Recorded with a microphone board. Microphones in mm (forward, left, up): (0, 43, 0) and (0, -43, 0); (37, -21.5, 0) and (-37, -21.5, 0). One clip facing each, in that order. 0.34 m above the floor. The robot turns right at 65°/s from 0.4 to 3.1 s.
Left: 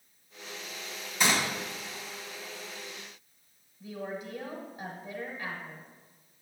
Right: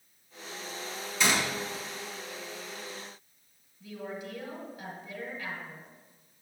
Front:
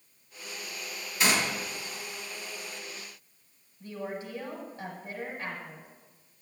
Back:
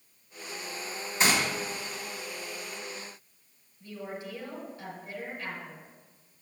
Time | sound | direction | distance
1.2 | a gunshot | 125° left | 2 m
3.8 | a woman speaking | 50° left | 1.4 m